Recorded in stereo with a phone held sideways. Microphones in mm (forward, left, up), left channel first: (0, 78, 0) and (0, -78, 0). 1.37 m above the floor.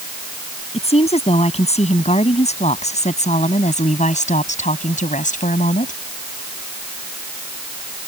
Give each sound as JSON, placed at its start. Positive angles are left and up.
{"t": 0.7, "sound": "a woman speaking", "side_deg": 40}